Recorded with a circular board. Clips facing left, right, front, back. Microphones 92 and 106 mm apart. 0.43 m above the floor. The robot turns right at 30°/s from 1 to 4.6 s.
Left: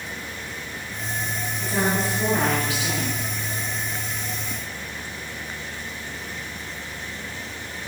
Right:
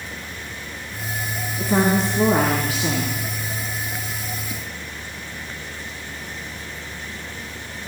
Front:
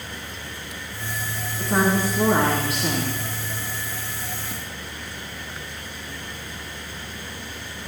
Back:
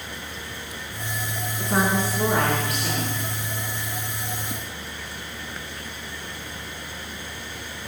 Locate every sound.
1.6 s a woman speaking: 90° right, 4.5 m; by 3.2 s 45° right, 4.5 m